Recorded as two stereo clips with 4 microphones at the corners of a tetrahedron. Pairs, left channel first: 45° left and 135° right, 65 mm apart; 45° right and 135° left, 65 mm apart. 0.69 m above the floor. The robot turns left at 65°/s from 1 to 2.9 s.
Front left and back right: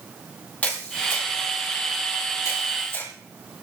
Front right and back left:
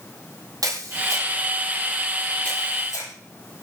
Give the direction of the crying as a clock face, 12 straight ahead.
I don't hear crying.